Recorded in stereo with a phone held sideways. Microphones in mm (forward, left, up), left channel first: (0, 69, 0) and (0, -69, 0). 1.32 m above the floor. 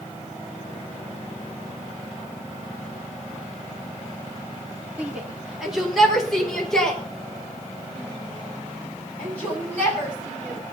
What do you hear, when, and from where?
5.0 s a shout: 10° right (ahead or behind), 3.5 m; by 10.6 s 15° left (ahead or behind), 12 m